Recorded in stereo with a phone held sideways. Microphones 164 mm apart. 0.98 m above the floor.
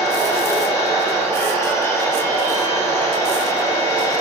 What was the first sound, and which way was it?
A machine running, 20° left (ahead or behind).